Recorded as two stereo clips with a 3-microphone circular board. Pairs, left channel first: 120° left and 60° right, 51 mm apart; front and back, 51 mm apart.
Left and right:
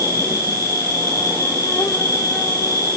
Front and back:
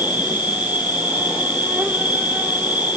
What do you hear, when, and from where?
0.0 s an insect: 115° left, 3.5 m